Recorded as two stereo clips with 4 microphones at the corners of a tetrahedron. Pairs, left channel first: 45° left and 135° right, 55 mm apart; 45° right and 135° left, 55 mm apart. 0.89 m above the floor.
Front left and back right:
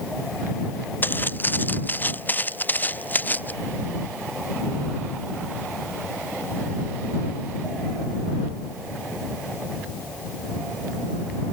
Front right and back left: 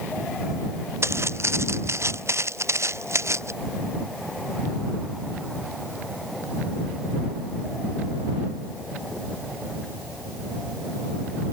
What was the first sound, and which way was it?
Footsteps, 100° left.